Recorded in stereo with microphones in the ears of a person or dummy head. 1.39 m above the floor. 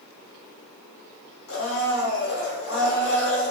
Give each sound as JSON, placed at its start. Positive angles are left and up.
{"t": 1.5, "sound": "a blender", "side_deg": 70, "distance_m": 2.5}